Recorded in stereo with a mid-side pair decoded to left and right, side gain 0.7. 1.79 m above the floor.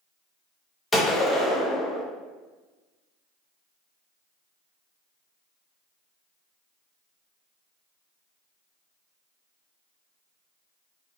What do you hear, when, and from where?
0.9 s a gunshot: 10° left, 0.8 m